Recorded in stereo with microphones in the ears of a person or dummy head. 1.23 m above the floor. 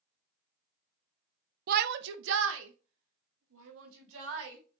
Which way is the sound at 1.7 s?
55° right (ahead or behind).